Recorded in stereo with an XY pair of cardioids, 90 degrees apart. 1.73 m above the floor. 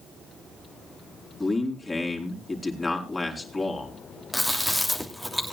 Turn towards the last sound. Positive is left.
turn(degrees=0)